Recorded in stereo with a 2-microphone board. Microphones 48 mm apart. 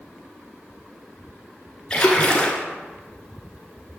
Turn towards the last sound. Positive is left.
turn(degrees=20)  # may be behind; listen again after turning